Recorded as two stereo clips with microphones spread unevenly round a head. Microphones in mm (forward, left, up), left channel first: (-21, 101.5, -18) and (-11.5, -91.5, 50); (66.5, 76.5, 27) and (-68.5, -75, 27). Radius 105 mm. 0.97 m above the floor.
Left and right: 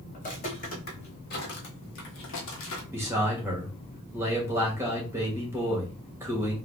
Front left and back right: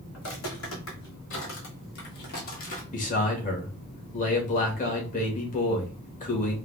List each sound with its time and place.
0.1 s footsteps: 30° left, 2 m; by 2.8 s 80° left, 1.2 m
2.9 s a man speaking: straight ahead, 1.4 m